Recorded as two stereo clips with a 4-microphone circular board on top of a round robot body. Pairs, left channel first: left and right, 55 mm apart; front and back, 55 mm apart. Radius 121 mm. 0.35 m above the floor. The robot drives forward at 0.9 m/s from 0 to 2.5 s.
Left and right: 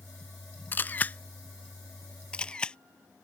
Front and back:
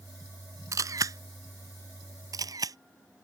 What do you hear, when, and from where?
0.7 s a camera shutter: 150° left; by 2.8 s 165° left